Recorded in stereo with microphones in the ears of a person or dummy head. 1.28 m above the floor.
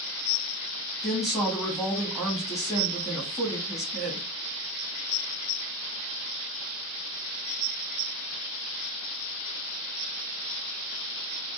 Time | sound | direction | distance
1.0 | a woman speaking | 5° right (ahead or behind) | 0.9 m